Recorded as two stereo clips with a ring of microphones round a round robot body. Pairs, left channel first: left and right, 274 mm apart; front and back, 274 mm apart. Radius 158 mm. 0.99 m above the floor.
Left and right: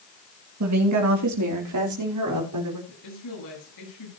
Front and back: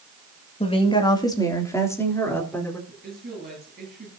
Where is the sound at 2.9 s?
115° left, 9.5 m.